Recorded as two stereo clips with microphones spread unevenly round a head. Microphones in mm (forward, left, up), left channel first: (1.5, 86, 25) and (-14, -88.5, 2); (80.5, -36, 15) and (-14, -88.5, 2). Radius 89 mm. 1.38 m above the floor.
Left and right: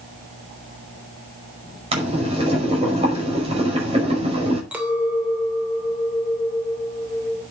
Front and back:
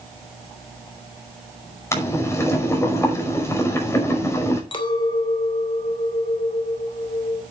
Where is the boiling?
35° right, 5.5 m.